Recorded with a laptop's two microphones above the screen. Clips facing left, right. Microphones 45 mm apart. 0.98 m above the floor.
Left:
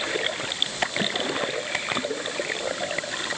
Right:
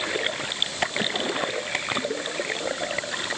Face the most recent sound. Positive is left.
No sound to turn to.